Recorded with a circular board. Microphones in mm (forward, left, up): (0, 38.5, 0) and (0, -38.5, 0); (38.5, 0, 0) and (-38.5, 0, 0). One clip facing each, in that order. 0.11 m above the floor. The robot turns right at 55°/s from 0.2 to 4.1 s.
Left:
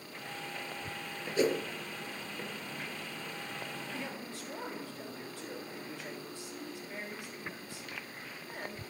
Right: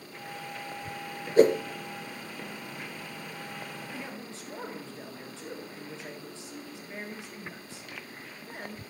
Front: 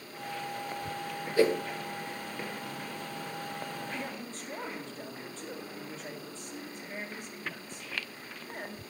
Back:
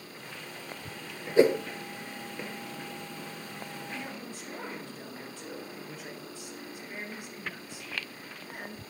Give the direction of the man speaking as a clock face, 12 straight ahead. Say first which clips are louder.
Right 1 dB, front 1 dB; 4 o'clock.